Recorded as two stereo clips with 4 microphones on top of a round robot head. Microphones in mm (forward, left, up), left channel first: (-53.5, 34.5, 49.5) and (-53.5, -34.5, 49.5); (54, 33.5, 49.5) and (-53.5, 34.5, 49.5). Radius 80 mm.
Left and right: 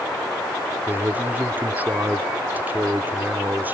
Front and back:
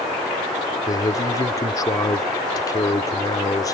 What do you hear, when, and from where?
0.9 s a man speaking: 40° right